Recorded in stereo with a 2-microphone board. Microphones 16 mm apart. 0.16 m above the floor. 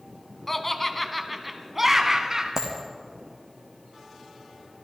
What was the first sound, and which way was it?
Laughter, 15° left (ahead or behind).